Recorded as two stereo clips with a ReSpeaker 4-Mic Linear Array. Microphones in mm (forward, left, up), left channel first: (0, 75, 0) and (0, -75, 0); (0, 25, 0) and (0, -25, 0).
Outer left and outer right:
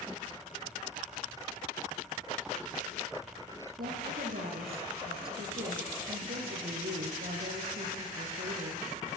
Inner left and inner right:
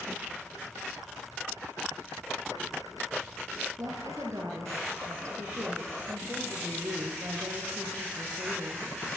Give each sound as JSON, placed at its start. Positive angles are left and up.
{"t": 3.8, "sound": "a woman speaking", "side_deg": -80, "distance_m": 5.5}